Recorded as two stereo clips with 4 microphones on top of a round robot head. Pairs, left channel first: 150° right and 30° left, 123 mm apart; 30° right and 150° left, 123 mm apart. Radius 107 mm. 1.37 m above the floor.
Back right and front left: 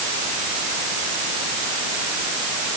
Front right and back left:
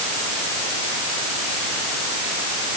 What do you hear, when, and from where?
Only background noise.